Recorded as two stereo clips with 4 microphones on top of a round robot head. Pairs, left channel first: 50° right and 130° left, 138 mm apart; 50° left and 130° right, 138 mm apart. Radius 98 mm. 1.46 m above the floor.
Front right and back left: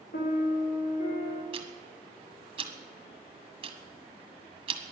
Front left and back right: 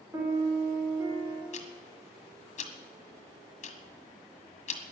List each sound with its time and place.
0.1 s a piano: 60° right, 3.5 m
1.5 s ticking: 80° left, 1.6 m